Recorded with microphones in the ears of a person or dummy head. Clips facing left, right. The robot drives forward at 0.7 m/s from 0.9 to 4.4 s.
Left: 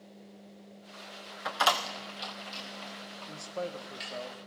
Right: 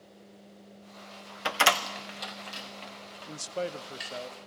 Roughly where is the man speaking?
Right.